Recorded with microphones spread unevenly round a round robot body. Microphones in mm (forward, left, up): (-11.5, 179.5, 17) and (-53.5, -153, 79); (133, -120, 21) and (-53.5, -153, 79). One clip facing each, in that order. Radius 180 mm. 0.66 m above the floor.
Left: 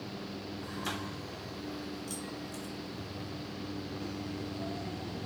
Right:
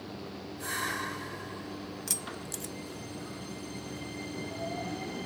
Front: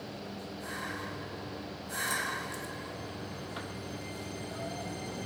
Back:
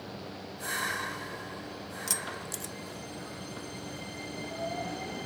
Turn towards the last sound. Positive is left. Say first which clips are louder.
# left 1 dB, front 1 dB
turn(degrees=-145)